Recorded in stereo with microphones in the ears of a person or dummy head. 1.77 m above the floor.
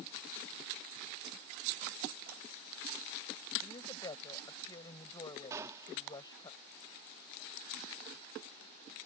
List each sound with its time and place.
3.6 s a woman speaking: 25° left (ahead or behind)
5.5 s a gunshot: 20° right (ahead or behind)